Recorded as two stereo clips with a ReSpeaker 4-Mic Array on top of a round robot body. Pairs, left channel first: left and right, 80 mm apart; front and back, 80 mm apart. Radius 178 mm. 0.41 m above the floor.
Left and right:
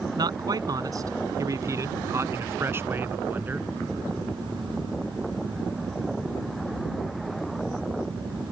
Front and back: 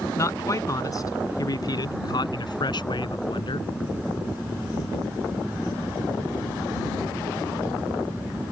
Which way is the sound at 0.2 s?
55° right.